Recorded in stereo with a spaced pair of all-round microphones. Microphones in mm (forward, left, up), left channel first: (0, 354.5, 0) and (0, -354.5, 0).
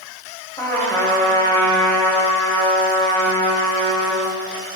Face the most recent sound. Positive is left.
turn(degrees=5)  # may be behind; listen again after turning